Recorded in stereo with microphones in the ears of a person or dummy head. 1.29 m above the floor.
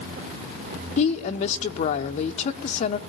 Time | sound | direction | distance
1.0 | a woman speaking | 45° left (ahead or behind) | 1.3 m